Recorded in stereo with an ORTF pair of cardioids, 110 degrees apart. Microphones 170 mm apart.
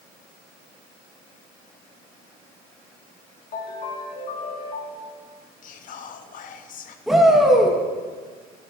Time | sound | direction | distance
3.5 | a ringtone | 50° left | 3 m
5.6 | whispering | 55° left | 1.1 m
7.1 | a shout | 5° right | 2.5 m